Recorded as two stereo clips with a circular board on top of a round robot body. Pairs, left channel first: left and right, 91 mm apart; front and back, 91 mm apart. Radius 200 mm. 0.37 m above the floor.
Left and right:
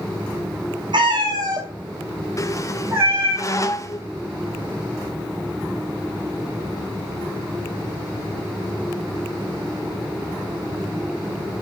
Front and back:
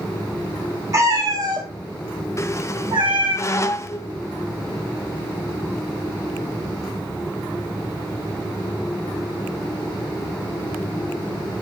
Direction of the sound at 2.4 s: 45° left.